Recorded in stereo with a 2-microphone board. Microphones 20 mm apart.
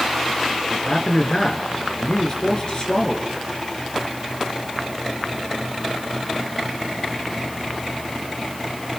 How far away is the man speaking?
About 3 m.